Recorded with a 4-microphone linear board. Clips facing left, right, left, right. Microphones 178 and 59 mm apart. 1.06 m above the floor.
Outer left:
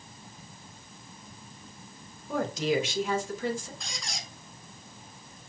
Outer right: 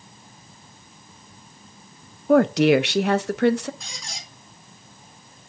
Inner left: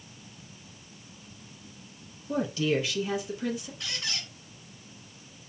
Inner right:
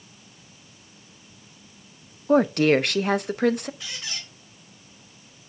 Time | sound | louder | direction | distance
2.3 | a woman speaking | outer right 12 dB, inner right 9 dB | 70° right (ahead or behind) | 0.5 m
3.8 | a squeak | even, even | centre (ahead or behind) | 2.5 m